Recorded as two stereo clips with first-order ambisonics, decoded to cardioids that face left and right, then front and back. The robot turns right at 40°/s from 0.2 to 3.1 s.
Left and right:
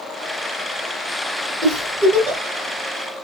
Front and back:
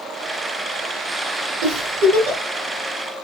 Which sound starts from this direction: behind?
A giggle, at 1.6 s.